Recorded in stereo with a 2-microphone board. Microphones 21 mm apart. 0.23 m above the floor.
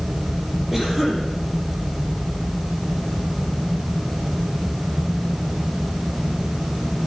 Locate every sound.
0.7 s a cough: 10° right (ahead or behind), 8.5 m